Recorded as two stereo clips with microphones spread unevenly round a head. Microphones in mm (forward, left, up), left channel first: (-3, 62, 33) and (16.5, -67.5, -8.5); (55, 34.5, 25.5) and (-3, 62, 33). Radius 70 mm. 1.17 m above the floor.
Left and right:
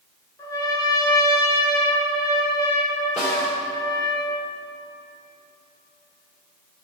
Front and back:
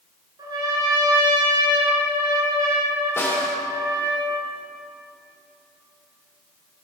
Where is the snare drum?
25° left, 3.5 m.